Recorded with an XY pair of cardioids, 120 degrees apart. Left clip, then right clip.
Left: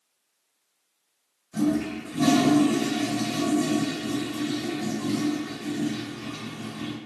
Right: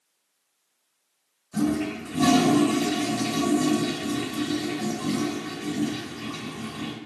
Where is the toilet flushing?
20° right, 2 m.